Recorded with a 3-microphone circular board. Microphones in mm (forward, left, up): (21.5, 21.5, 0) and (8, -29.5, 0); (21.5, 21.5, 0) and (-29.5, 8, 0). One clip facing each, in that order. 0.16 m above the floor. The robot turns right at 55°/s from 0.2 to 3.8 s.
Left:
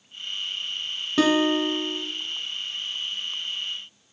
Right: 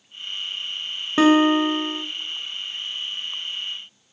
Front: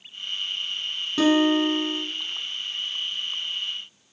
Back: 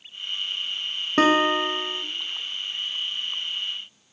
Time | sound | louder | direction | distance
1.2 | a guitar | right 5 dB, even | 155° right | 0.6 m